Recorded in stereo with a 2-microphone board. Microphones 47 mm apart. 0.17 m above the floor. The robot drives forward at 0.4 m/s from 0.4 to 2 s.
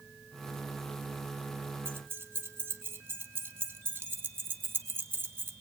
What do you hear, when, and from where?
1.9 s keys jangling: 50° right (ahead or behind), 1.7 m